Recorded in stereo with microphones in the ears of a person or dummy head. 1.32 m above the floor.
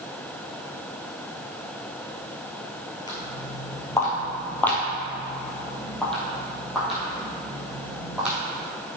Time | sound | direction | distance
3.1 | footsteps | 20° left (ahead or behind) | 1.7 m